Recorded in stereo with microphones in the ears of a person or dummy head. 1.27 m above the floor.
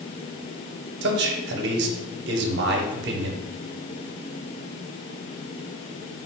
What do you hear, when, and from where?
1.0 s a man speaking: 60° right (ahead or behind), 0.7 m